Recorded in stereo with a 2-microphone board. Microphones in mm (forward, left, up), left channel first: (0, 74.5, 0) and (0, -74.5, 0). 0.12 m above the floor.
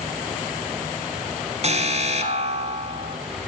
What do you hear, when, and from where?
1.6 s an alarm: 45° right (ahead or behind), 1.2 m